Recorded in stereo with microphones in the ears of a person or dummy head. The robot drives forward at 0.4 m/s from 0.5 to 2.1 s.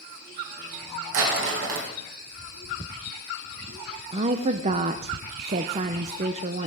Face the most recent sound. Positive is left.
turn(degrees=-30)  # may be behind; listen again after turning